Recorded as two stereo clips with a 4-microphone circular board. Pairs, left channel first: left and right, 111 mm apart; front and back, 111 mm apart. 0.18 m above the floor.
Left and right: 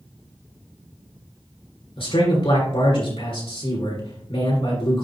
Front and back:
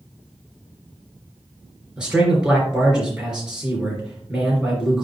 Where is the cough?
I don't hear a cough.